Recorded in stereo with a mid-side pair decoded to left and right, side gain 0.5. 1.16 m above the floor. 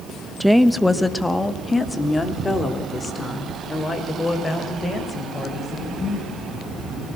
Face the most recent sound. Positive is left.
turn(degrees=30)